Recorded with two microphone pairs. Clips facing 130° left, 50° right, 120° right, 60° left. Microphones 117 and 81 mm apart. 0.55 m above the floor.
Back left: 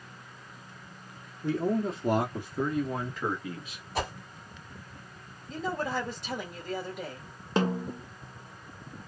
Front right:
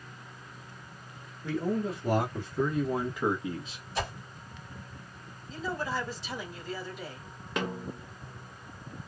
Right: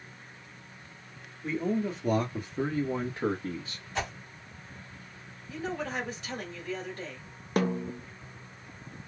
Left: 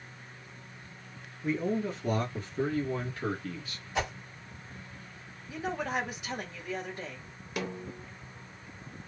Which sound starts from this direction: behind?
A snare drum, at 7.6 s.